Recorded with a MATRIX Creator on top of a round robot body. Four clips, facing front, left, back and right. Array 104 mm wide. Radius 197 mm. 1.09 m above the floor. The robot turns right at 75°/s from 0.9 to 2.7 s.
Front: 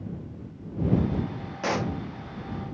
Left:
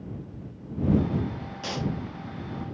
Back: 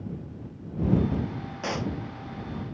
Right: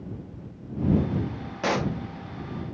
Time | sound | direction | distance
1.6 | a pop | 70° right | ?